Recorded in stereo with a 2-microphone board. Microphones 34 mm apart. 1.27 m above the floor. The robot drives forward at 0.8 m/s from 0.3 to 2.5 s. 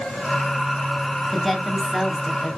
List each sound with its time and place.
1.3 s a woman speaking: 5° left (ahead or behind), 1.7 m; by 2.5 s centre (ahead or behind), 2.5 m